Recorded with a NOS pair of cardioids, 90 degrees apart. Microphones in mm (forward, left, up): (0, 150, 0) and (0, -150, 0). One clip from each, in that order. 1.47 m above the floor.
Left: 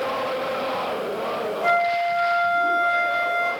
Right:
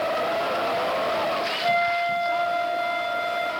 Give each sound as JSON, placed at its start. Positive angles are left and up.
{"t": 1.6, "sound": "a flute", "azimuth_deg": 5, "distance_m": 2.5}